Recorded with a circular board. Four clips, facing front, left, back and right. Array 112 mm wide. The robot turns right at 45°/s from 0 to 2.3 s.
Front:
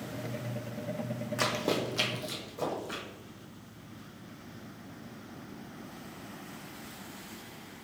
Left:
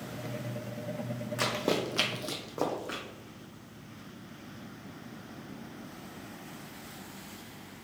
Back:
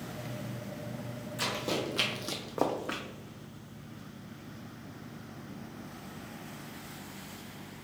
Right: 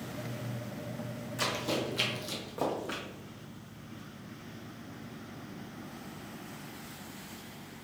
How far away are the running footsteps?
About 1.0 m.